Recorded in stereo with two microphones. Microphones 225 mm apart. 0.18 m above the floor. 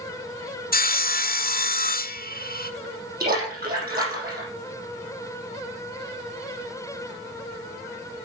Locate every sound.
0.7 s sawing: 40° left (ahead or behind), 0.6 m
3.2 s a splash: 40° right (ahead or behind), 6 m